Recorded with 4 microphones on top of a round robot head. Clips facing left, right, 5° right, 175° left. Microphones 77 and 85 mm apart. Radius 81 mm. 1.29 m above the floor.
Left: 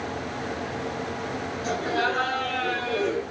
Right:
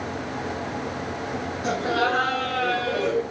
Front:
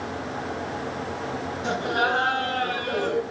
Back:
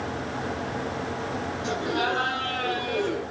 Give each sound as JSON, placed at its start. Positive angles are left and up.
{"t": 1.6, "sound": "laughter", "azimuth_deg": -55, "distance_m": 8.5}